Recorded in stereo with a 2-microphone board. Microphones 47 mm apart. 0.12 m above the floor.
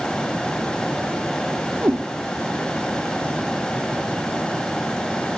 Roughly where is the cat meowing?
Right.